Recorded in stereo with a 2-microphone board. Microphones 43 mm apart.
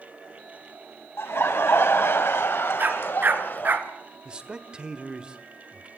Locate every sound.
1.2 s laughter: 65° left (ahead or behind), 2.5 m; by 3.8 s 45° left (ahead or behind), 1.7 m
2.8 s a dog barking: 45° right (ahead or behind), 1.5 m
4.2 s a man speaking: 20° right (ahead or behind), 1.2 m